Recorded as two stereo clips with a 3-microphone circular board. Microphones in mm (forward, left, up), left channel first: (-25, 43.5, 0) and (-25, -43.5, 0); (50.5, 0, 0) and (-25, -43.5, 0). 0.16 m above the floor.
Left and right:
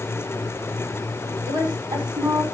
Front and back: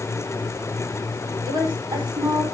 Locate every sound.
1.5 s a woman speaking: 125° right, 5.5 m